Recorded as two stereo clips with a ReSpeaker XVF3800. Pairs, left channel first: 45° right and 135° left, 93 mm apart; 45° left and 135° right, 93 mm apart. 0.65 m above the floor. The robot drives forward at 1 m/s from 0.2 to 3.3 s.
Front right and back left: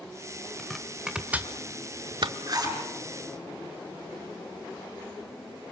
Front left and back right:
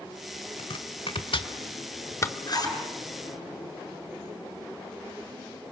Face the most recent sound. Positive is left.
turn(degrees=90)